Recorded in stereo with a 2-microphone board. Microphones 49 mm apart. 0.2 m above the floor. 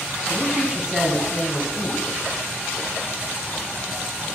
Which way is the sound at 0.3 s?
30° right (ahead or behind).